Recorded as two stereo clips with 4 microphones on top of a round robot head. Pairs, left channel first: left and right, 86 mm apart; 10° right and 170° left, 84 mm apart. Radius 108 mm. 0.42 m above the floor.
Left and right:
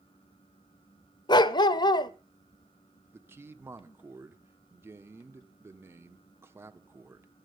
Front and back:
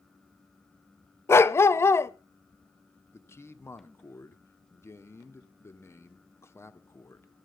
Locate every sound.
1.3 s a dog barking: 50° left, 0.7 m
3.1 s a man speaking: 45° right, 1.8 m